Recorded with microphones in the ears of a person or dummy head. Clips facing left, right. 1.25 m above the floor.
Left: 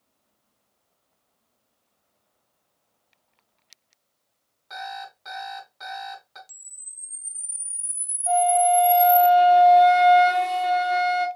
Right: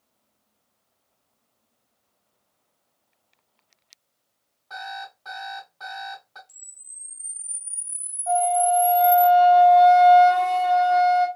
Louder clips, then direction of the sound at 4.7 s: Left 1 dB; 25° left (ahead or behind).